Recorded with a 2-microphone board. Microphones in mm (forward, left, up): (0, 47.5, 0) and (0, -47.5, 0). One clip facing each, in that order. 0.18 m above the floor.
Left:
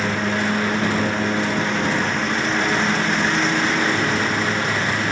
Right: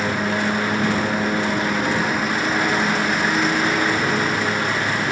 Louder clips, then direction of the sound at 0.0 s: Even; 5° right (ahead or behind).